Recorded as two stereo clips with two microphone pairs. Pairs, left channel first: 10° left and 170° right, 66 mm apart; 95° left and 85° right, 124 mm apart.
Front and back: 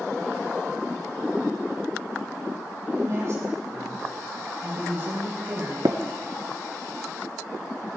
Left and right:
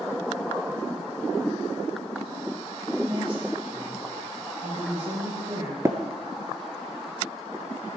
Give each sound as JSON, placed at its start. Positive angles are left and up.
{"t": 2.9, "sound": "a woman speaking", "azimuth_deg": -130, "distance_m": 6.5}
{"t": 5.8, "sound": "tapping", "azimuth_deg": -150, "distance_m": 1.0}